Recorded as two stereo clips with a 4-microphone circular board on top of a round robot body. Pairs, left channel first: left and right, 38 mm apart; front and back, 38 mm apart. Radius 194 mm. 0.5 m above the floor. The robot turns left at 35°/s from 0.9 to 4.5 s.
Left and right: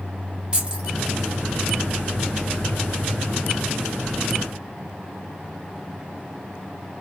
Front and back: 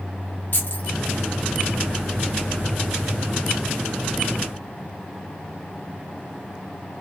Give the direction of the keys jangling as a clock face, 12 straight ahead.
1 o'clock.